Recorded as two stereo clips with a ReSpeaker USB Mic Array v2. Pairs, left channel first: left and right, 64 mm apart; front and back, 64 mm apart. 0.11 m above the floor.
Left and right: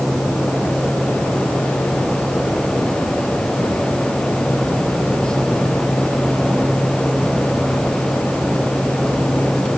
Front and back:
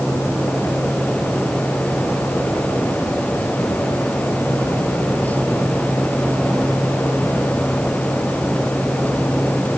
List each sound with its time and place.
Only background noise.